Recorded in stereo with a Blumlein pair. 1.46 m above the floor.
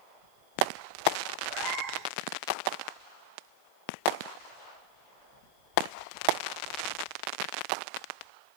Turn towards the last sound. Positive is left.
turn(degrees=-40)